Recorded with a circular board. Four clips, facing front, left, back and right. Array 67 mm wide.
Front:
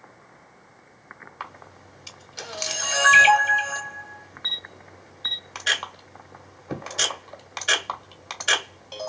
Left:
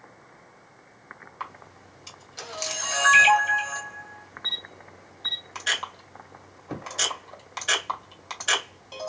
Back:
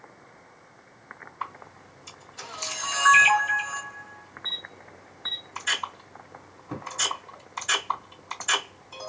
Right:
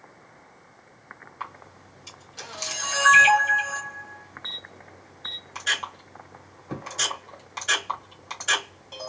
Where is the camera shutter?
15° left, 1.8 m.